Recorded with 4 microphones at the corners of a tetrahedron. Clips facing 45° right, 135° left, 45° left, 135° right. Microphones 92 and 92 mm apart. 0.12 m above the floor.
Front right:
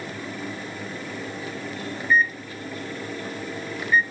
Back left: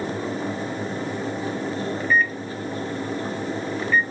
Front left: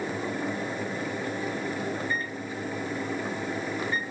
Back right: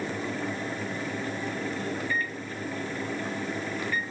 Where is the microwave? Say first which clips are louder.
Front right 2 dB, even; 15° left, 1.1 m.